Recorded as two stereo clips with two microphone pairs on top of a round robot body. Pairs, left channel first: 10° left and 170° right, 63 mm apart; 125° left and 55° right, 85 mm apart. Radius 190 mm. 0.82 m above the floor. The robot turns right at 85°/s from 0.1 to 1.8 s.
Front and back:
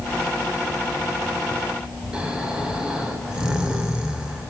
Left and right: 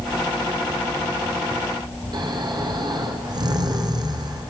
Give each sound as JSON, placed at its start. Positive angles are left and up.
{"t": 2.1, "sound": "snoring", "azimuth_deg": -95, "distance_m": 3.0}